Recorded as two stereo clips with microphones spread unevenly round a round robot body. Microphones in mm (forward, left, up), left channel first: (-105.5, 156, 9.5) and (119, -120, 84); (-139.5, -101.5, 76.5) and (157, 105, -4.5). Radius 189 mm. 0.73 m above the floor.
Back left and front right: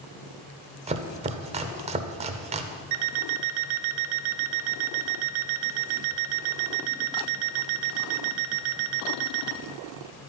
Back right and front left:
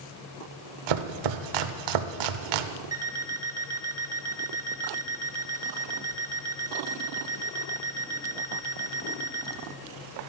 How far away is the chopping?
About 0.6 m.